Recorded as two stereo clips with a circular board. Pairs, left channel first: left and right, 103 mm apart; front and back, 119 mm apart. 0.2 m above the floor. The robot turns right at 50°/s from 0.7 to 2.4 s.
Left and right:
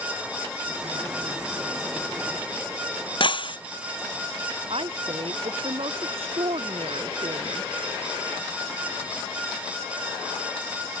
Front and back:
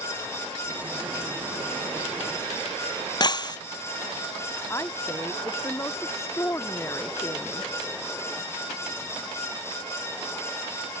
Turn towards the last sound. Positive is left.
turn(degrees=-65)